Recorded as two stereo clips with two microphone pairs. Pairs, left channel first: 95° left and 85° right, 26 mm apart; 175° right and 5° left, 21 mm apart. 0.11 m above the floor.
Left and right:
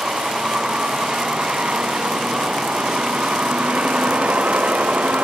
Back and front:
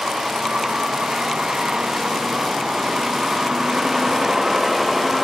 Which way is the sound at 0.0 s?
30° right.